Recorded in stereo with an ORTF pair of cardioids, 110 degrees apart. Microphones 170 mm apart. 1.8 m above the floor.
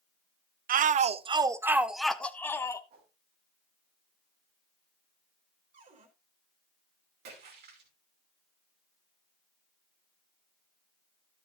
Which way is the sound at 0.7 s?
55° right.